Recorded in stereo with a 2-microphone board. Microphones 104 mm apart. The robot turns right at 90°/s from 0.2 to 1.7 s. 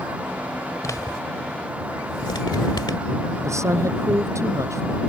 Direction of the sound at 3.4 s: 25° right (ahead or behind).